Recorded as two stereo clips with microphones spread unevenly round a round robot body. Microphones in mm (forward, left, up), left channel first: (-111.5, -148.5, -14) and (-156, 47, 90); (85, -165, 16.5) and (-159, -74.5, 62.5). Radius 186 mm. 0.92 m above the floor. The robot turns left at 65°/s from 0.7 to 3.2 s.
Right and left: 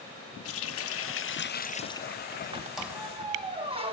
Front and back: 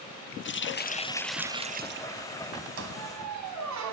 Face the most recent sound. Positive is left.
turn(degrees=155)